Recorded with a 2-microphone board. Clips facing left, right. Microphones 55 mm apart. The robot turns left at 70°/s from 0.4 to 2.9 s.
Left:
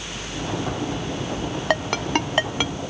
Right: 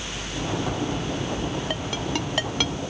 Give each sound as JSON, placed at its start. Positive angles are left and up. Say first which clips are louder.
{"t": 1.7, "sound": "a ringtone", "louder": "left 6 dB", "side_deg": 80}